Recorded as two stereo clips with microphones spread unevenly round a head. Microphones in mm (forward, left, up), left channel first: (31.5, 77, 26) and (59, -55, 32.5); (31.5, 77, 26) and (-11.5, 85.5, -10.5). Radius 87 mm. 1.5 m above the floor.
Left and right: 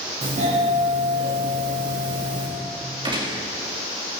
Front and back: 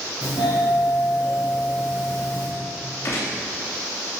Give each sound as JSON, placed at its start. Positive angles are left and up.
{"t": 0.2, "sound": "a doorbell", "azimuth_deg": -50, "distance_m": 3.0}
{"t": 3.0, "sound": "a gunshot", "azimuth_deg": -25, "distance_m": 3.0}